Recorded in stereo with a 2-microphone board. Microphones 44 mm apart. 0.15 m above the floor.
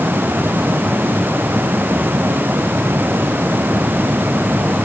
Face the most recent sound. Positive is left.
No sound to turn to.